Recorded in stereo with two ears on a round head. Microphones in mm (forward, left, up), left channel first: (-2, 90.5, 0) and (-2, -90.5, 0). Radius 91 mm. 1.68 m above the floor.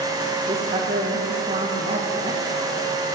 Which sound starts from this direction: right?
A woman speaking, at 0.5 s.